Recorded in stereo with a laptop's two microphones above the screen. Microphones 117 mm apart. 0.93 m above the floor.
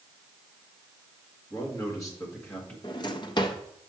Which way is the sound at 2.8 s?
40° left (ahead or behind).